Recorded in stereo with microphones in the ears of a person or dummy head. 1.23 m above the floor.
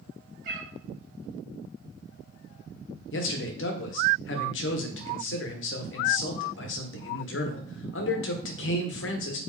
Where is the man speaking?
60° left (ahead or behind), 0.9 m.